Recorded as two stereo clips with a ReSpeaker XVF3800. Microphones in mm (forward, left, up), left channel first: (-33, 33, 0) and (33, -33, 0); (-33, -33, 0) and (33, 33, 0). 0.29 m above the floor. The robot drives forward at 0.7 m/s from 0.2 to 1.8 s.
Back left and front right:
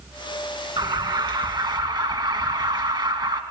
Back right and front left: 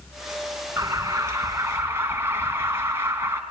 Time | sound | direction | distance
0.8 | an alarm | 10° right | 3 m